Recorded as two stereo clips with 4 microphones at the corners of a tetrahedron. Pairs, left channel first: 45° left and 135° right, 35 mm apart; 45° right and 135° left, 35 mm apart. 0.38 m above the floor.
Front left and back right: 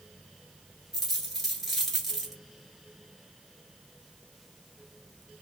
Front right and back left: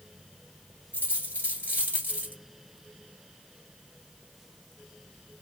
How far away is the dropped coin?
About 1.4 m.